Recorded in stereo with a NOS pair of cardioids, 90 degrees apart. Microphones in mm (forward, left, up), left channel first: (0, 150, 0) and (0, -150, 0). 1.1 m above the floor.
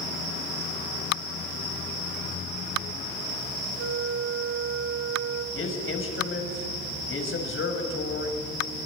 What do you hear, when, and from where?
3.8 s a flute: 40° right, 1.6 m
5.5 s a man speaking: 45° left, 6.5 m